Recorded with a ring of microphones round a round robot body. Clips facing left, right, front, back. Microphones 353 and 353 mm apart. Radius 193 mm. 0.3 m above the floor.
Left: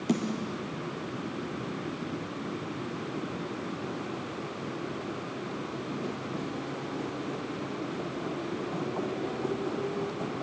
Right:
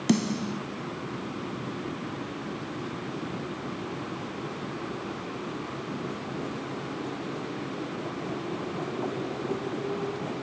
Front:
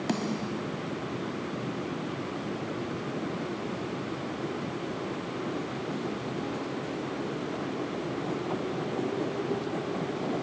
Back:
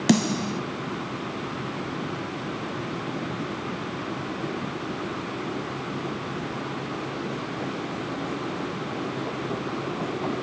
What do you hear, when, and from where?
0.1 s a snare drum: 150° right, 1.5 m